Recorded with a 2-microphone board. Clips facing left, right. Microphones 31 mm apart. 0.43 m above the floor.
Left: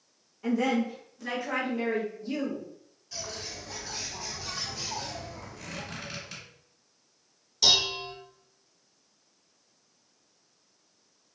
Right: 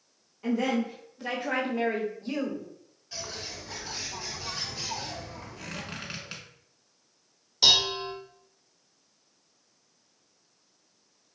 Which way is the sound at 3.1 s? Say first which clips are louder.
Even; 15° right (ahead or behind).